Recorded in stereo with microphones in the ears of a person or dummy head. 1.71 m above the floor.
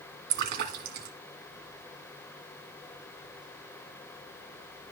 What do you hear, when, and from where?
0.3 s a splash: 55° right (ahead or behind), 2 m